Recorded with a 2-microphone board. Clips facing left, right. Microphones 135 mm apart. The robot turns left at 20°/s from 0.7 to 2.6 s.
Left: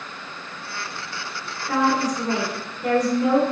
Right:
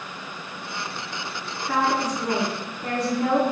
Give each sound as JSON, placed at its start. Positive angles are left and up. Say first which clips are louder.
{"t": 1.7, "sound": "a woman speaking", "louder": "left 2 dB", "side_deg": -25, "distance_m": 1.5}